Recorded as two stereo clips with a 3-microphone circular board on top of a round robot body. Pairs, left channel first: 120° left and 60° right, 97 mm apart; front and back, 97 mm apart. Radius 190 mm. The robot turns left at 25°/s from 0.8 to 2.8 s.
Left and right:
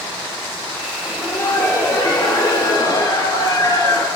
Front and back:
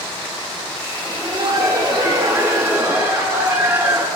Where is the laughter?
170° left, 1.9 m; by 4.1 s 130° left, 1.9 m.